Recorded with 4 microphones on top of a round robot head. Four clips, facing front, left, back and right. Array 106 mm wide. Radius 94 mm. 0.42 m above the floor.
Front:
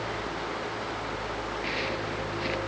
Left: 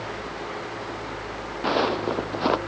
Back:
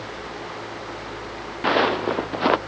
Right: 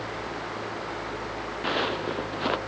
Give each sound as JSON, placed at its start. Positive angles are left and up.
{"t": 1.6, "sound": "footsteps", "azimuth_deg": 150}